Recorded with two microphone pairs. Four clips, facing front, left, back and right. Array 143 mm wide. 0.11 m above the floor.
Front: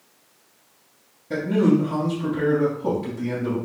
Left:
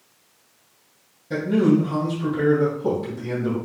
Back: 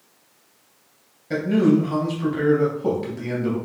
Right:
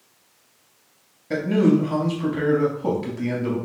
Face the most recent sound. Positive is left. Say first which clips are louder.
# even, back 1 dB
turn(degrees=-130)